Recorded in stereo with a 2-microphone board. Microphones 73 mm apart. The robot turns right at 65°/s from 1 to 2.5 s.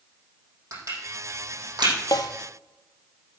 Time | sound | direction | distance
0.7 | crushing | 45° right (ahead or behind) | 6 m
2.1 | a snare drum | 65° left (ahead or behind) | 1.2 m